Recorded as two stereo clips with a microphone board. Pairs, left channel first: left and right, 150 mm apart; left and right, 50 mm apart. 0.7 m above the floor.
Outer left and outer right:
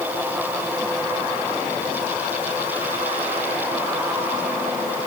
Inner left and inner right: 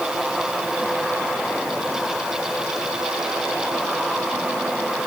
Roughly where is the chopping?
I don't hear chopping.